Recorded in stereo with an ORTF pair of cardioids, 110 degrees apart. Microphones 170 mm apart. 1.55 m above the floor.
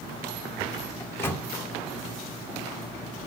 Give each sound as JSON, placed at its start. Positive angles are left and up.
{"t": 1.0, "sound": "a microwave", "azimuth_deg": 15, "distance_m": 0.6}